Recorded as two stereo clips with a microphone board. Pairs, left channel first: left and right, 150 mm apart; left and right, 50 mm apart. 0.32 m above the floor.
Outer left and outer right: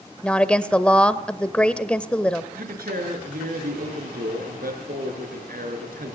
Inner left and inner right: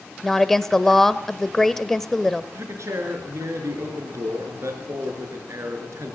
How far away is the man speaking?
About 6 m.